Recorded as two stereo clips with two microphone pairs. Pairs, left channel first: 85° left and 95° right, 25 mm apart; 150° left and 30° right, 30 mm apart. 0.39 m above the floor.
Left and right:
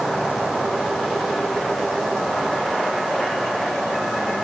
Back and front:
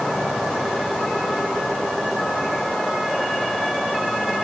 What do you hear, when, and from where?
Only background noise.